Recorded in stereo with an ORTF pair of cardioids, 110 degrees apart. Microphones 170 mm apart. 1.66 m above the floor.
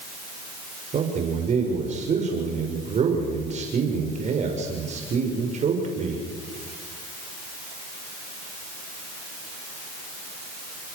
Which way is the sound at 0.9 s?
45° right.